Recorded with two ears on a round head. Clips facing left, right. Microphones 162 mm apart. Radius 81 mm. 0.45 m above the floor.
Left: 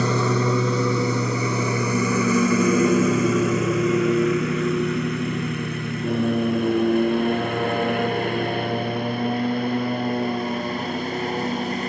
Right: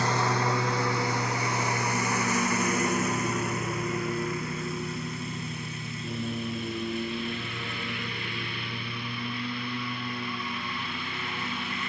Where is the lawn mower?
80° left; by 11.9 s 35° left (ahead or behind).